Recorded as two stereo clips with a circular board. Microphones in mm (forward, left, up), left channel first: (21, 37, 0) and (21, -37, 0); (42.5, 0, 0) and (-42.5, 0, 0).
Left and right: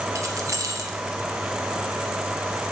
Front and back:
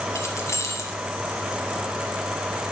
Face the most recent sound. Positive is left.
turn(degrees=-50)